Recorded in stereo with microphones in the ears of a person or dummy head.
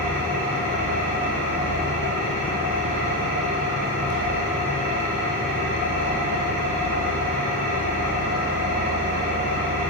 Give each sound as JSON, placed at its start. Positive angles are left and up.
{"t": 0.0, "sound": "an engine running", "side_deg": -55, "distance_m": 1.8}